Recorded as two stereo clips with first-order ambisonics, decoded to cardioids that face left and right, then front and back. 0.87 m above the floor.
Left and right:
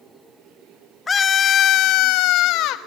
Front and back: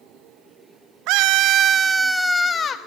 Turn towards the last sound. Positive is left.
turn(degrees=60)